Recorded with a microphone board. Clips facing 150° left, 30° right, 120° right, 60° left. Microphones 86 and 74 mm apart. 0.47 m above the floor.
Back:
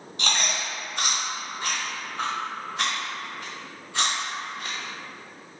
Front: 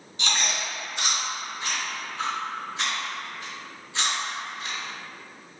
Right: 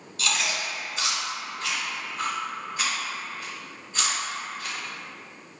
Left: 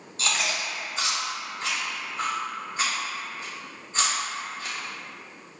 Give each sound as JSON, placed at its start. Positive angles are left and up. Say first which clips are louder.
{"t": 0.2, "sound": "chewing", "louder": "back 1 dB, even", "azimuth_deg": 120, "distance_m": 1.1}